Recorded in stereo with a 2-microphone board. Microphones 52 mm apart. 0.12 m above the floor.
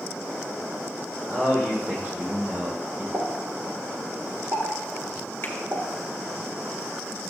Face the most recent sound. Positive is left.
turn(degrees=40)  # may be behind; listen again after turning